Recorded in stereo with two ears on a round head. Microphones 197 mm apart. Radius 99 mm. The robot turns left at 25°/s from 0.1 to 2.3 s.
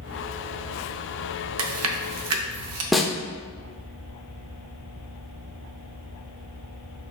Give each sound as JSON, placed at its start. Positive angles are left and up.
{"t": 1.6, "sound": "chewing", "side_deg": -65, "distance_m": 0.6}
{"t": 2.9, "sound": "a snare drum", "side_deg": 0, "distance_m": 0.6}